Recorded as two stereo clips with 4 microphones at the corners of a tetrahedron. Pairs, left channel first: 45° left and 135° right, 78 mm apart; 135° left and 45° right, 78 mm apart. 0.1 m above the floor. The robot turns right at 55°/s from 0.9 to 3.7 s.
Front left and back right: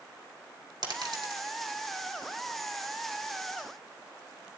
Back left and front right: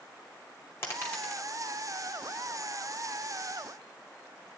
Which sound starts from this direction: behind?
A dropped coin, at 0.8 s.